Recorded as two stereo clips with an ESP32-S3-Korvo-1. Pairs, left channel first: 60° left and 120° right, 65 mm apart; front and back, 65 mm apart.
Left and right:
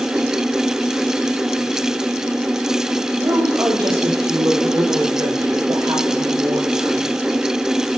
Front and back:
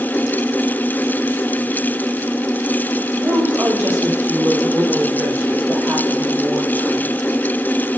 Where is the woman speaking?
115° right, 4 m; by 7.2 s 110° right, 9.5 m.